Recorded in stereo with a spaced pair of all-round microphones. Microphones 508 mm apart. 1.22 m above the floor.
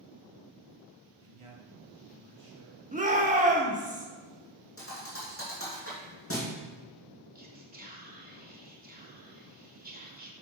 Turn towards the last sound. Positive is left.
turn(degrees=-15)  # may be behind; listen again after turning